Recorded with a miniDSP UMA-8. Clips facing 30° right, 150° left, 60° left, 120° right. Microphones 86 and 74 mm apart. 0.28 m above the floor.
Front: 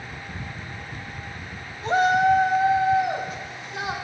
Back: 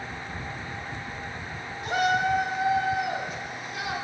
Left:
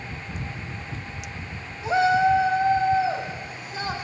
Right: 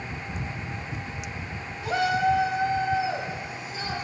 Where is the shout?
10° left, 1.1 m; by 4.0 s 30° left, 2 m.